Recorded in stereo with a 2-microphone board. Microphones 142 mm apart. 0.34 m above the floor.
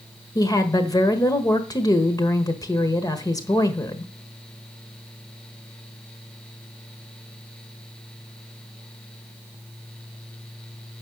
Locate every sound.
0.3 s a woman speaking: 25° left (ahead or behind), 1.3 m